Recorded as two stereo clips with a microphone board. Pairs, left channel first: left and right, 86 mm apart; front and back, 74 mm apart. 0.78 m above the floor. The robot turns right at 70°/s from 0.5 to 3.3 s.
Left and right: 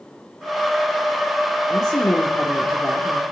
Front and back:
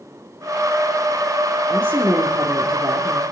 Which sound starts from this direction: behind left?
A woman speaking, at 1.7 s.